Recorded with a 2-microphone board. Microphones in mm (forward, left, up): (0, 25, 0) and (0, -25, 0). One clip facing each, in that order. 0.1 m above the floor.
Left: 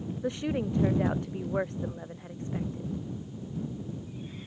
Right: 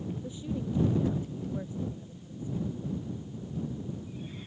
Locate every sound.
0.2 s a woman speaking: 70° left (ahead or behind)